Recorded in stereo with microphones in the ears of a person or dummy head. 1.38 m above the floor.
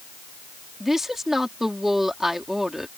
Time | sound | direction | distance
0.8 | a woman speaking | centre (ahead or behind) | ?